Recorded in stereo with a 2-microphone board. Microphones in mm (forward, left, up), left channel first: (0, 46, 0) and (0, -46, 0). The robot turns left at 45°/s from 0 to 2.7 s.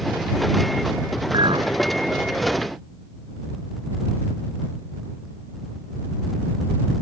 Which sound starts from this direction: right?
A clink, at 1.3 s.